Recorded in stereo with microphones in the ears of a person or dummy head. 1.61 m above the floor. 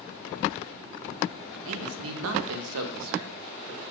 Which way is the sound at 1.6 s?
75° right (ahead or behind).